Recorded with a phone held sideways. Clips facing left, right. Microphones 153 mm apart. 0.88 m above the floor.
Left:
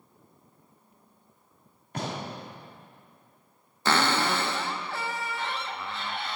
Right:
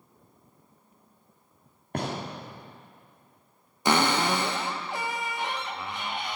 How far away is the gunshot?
About 2.0 m.